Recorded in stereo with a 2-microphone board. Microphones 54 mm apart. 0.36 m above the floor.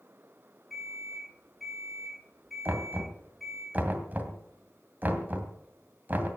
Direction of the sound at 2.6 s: 35° right (ahead or behind).